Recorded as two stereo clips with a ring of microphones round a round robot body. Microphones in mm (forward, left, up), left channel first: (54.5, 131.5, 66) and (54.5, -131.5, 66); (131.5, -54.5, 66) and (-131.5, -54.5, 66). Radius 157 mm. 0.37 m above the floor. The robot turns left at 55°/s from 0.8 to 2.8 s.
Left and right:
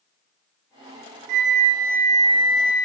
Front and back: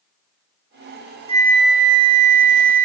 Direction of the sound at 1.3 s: 110° right.